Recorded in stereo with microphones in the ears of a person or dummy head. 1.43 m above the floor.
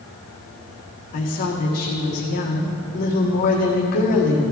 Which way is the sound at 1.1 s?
45° left (ahead or behind).